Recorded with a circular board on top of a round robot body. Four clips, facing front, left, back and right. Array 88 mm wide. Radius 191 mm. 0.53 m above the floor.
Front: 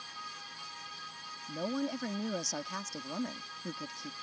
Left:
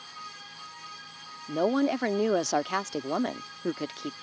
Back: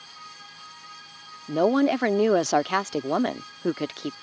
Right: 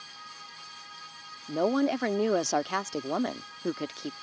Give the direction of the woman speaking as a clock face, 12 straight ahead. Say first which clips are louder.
Left 1 dB, back 15 dB; 6 o'clock.